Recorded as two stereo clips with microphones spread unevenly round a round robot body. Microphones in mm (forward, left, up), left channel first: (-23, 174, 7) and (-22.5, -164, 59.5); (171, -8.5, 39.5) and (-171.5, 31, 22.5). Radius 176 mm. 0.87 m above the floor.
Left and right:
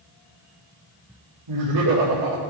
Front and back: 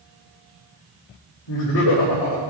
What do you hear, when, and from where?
1.5 s laughter: 55° right, 2.5 m